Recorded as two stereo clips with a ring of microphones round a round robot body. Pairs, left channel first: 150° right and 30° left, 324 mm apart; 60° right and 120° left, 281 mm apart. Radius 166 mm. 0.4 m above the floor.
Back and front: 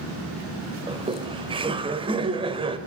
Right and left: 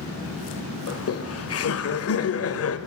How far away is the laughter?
About 2 m.